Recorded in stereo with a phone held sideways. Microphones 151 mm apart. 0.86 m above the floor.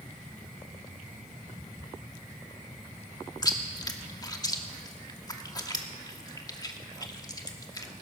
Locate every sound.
3.4 s chewing: 25° left (ahead or behind), 1.1 m